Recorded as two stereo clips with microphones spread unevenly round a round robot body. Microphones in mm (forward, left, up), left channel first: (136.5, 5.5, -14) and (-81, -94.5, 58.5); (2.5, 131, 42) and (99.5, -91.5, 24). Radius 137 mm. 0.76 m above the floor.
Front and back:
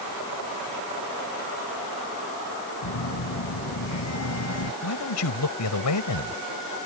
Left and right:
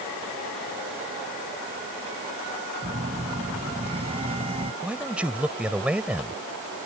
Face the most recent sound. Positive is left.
turn(degrees=20)